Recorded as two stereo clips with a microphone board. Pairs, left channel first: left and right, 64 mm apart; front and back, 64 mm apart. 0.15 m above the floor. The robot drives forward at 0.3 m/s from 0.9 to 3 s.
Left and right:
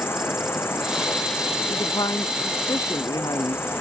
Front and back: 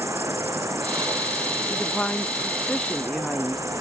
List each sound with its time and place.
0.0 s an insect: 140° left; by 3.8 s 145° left
1.7 s a woman speaking: 80° left